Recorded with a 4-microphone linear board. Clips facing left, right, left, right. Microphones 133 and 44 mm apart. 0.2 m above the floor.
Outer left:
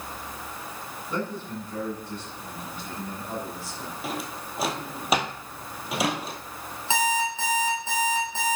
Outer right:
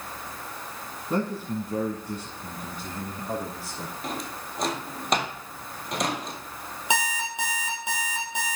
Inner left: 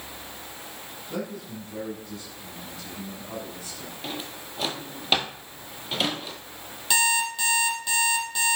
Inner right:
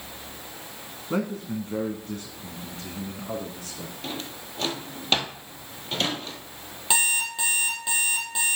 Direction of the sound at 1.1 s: 45° right (ahead or behind).